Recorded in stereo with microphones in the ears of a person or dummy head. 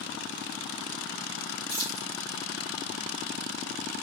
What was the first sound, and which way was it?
Keys jangling, 50° right (ahead or behind).